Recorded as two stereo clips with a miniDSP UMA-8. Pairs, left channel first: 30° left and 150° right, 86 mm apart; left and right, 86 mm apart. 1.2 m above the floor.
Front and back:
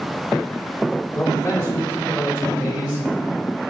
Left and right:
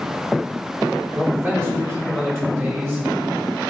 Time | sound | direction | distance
1.1 | a man speaking | 30° right | 3 m